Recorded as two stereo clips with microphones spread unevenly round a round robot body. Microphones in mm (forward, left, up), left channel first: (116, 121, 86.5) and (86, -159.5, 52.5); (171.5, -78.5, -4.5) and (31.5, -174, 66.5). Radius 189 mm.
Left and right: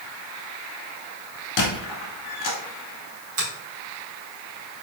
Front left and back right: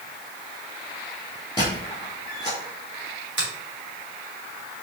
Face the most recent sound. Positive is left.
turn(degrees=-125)